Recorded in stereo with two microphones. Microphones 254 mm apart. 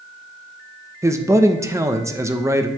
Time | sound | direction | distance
1.0 | a man speaking | 10° right (ahead or behind) | 0.8 m